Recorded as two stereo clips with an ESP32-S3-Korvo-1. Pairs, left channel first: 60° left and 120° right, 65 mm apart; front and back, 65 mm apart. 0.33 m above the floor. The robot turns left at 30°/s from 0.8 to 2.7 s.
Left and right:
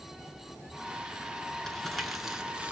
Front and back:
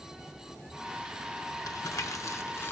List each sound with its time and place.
1.7 s crumpling: 20° right, 0.7 m; by 2.7 s 55° right, 0.7 m